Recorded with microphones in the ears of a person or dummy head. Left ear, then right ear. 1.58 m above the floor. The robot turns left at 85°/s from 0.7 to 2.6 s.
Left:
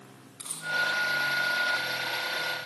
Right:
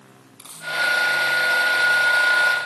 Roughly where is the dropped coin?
Centre.